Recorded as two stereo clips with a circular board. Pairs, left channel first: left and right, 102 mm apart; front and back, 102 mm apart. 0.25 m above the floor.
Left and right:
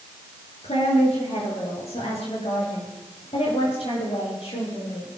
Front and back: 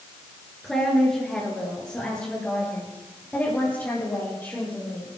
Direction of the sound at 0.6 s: 85° left.